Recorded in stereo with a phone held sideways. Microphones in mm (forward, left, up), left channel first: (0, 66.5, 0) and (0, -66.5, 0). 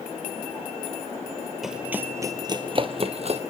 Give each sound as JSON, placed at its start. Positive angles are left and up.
{"t": 1.6, "sound": "running footsteps", "side_deg": -5, "distance_m": 1.3}